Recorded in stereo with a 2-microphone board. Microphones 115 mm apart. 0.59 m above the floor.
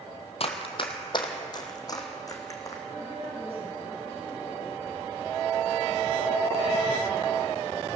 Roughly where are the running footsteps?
Left.